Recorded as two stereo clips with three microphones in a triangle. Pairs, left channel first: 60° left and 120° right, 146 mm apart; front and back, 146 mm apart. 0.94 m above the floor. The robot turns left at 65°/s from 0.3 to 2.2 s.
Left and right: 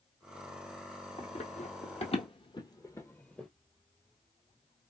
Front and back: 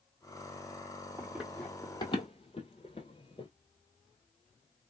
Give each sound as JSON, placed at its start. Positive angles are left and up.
{"t": 1.2, "sound": "running footsteps", "azimuth_deg": 115, "distance_m": 1.7}